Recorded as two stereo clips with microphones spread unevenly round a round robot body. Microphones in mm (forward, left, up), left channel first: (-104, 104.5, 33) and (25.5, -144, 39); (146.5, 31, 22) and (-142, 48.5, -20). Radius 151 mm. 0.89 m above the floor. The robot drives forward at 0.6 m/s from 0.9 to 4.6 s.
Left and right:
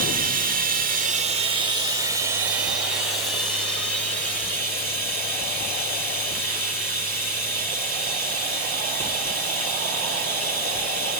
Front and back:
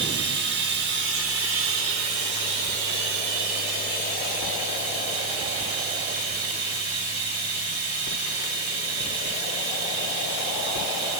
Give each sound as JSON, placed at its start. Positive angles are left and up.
{"t": 0.0, "sound": "running water", "azimuth_deg": -125, "distance_m": 1.5}